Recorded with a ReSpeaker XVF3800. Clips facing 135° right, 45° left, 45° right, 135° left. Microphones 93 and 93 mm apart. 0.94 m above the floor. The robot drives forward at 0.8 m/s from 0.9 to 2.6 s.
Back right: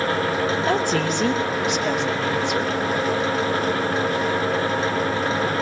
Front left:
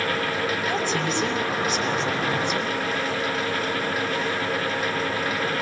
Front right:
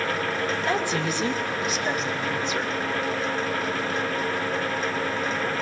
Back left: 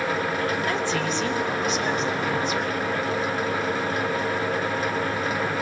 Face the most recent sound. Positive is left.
turn(degrees=-135)